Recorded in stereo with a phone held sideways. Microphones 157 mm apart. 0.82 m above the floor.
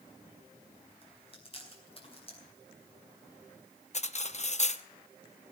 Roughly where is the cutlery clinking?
Left.